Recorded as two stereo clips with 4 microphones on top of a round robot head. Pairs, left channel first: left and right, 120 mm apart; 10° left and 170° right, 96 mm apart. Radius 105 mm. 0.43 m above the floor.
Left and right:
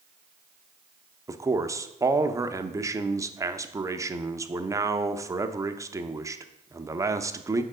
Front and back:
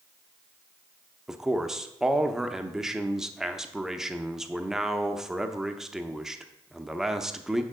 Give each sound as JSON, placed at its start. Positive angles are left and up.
{"t": 1.3, "sound": "a man speaking", "azimuth_deg": -85, "distance_m": 0.8}